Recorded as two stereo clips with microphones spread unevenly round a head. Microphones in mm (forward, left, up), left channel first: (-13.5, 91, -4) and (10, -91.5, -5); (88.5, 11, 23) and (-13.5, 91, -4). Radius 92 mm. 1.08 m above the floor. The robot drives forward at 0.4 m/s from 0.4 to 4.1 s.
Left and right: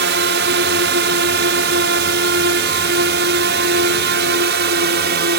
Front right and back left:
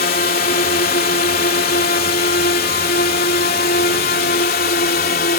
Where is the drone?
60° right; by 5.4 s 50° right.